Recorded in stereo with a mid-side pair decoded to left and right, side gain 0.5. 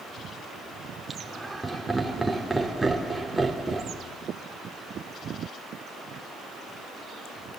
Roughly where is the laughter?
Ahead.